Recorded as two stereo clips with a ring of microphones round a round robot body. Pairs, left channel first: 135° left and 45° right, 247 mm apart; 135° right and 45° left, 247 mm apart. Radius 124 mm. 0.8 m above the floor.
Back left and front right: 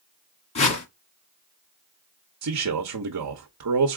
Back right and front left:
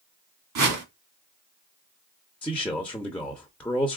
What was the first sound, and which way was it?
A whoosh, 70° left.